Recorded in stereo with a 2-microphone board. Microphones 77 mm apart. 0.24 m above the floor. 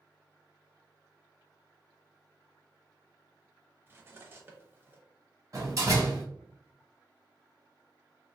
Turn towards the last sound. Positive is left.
turn(degrees=-40)  # may be behind; listen again after turning